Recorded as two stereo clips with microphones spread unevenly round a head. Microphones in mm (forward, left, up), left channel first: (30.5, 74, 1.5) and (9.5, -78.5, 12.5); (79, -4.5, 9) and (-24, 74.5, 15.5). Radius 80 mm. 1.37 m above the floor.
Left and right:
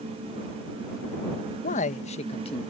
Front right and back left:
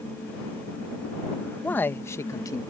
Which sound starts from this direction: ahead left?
A man speaking, at 1.6 s.